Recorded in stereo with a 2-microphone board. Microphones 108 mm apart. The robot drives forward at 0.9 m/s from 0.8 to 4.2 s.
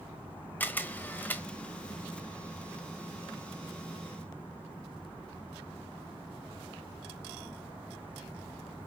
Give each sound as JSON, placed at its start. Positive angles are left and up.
{"t": 0.6, "sound": "a camera shutter", "side_deg": 15, "distance_m": 1.1}